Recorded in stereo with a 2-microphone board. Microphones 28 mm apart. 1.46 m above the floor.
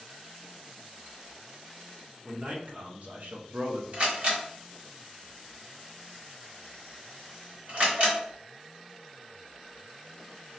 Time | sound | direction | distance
2.2 | a man speaking | 40° right (ahead or behind) | 1.2 m
3.9 | a camera shutter | 50° right (ahead or behind) | 1.5 m